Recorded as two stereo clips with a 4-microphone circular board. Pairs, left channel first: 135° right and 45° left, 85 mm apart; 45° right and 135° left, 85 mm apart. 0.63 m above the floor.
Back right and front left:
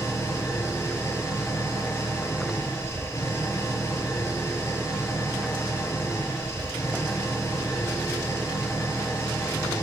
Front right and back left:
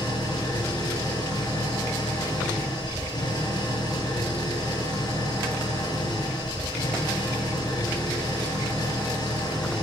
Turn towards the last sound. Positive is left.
turn(degrees=-80)